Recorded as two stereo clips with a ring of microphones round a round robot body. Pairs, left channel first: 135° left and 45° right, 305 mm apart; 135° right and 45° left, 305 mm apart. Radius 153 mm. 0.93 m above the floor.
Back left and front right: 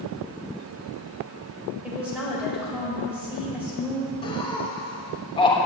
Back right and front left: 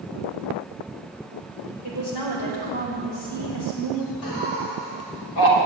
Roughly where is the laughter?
Behind right.